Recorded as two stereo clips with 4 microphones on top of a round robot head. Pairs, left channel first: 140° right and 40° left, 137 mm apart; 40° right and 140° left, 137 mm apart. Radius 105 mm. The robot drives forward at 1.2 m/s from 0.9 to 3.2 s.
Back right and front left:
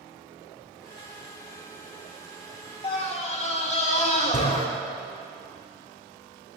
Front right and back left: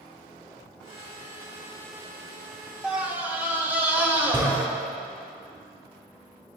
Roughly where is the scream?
Behind right.